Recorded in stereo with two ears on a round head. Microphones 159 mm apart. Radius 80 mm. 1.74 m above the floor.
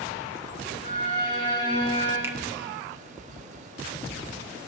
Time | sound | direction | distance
0.8 | a violin | 75° left (ahead or behind) | 5.5 m
2.2 | a finger snap | 15° right (ahead or behind) | 0.9 m